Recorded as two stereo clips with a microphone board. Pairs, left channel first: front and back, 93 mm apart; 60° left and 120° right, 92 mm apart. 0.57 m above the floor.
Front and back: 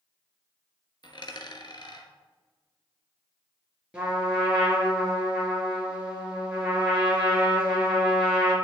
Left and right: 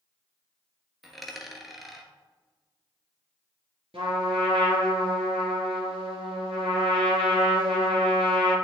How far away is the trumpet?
About 2.5 m.